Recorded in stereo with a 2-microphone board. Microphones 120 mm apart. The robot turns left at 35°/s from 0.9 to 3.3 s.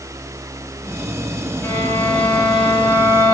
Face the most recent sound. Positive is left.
turn(degrees=-30)